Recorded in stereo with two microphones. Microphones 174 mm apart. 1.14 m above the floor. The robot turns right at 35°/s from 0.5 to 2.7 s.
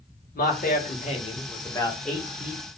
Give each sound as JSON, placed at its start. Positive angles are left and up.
{"t": 0.3, "sound": "a man speaking", "azimuth_deg": 115, "distance_m": 1.6}